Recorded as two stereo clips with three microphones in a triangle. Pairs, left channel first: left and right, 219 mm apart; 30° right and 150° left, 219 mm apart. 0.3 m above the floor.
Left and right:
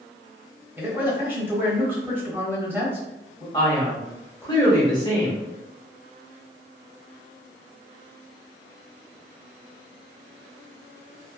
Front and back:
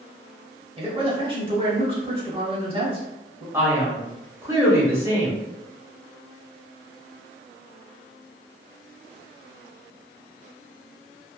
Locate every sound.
0.8 s a man speaking: 165° right, 1.0 m
3.5 s a man speaking: 105° left, 0.9 m